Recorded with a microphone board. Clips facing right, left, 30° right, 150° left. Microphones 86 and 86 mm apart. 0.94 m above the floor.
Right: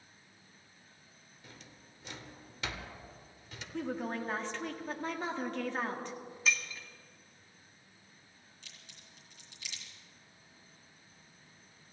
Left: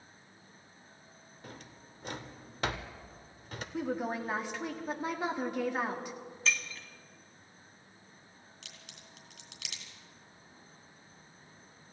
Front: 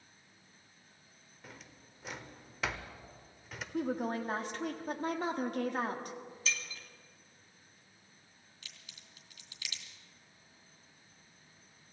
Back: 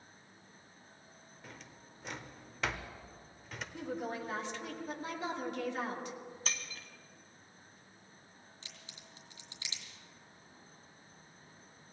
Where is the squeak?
No squeak in this recording.